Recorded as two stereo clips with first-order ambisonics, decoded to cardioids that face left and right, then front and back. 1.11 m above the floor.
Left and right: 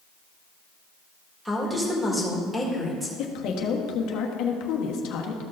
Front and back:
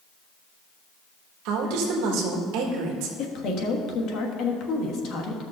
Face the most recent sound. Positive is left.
turn(degrees=50)